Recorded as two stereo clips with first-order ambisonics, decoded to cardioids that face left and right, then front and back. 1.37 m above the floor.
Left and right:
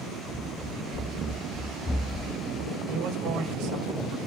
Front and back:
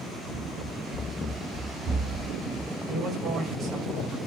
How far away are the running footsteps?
About 2 m.